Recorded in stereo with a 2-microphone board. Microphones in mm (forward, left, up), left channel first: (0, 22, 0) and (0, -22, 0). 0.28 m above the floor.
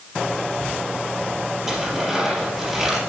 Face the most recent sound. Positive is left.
turn(degrees=-5)  # may be behind; listen again after turning